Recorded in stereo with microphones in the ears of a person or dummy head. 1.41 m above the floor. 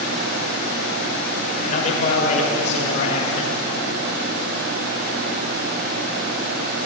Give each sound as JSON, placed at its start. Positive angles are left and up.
{"t": 1.6, "sound": "a man speaking", "side_deg": 45, "distance_m": 6.0}